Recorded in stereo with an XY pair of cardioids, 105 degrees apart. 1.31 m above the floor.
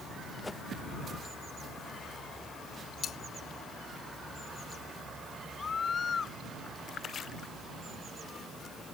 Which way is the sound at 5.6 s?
35° left.